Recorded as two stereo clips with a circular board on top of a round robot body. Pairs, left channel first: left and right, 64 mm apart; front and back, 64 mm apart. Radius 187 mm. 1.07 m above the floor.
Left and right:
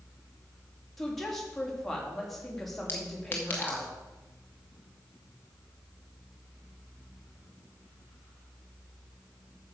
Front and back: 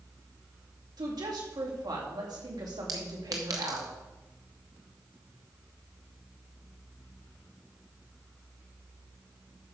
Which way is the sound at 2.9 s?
150° left.